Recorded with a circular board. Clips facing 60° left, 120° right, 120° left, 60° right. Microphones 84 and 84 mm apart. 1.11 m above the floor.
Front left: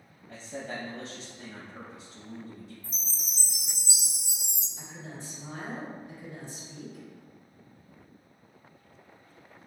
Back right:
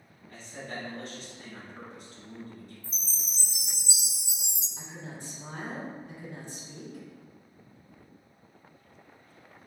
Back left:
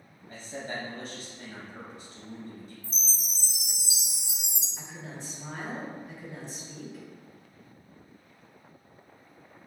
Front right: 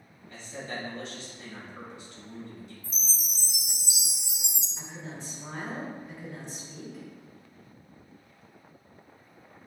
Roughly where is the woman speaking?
Behind right.